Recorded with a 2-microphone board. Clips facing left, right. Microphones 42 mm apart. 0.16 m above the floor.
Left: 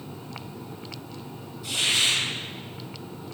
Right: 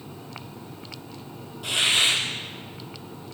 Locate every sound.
1.6 s a hiss: 75° right (ahead or behind), 3.5 m